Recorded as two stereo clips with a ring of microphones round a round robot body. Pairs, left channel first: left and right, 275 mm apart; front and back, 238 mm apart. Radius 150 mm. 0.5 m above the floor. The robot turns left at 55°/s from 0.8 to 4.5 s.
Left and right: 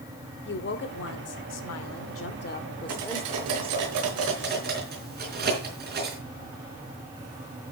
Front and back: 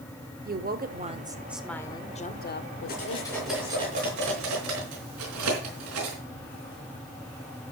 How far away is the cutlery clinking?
About 4.5 m.